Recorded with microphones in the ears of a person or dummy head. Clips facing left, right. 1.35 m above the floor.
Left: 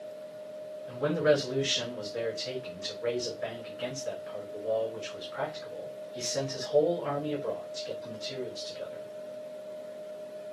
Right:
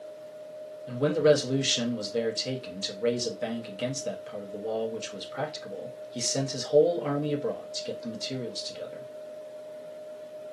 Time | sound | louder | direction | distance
0.9 | a man speaking | right 4 dB | 50° right (ahead or behind) | 1.2 m